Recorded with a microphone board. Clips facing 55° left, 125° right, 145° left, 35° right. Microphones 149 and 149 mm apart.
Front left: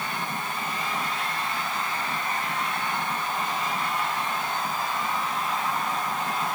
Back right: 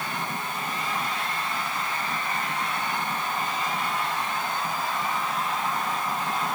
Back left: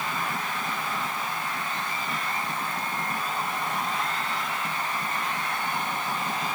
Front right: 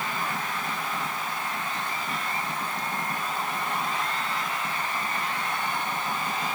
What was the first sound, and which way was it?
Only background noise.